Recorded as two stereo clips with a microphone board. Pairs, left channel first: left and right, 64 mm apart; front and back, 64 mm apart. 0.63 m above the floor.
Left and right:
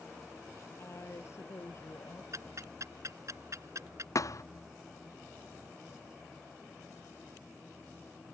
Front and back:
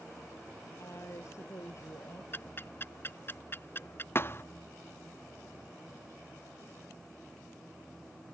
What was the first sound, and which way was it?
A woman speaking, 45° left.